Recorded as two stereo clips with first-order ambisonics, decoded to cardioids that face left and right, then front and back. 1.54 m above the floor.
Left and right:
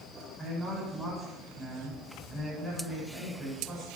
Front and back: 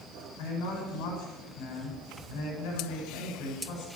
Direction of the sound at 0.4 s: 5° left.